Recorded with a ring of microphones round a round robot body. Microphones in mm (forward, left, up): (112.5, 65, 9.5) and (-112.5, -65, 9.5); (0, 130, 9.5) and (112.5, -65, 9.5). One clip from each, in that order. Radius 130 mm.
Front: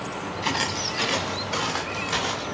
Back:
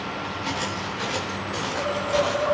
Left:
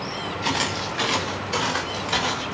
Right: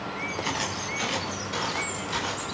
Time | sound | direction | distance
0.4 | footsteps | 50° left | 5 m